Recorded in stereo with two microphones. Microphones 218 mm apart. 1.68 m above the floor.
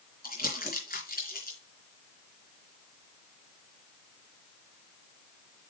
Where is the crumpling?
45° left (ahead or behind), 3 m.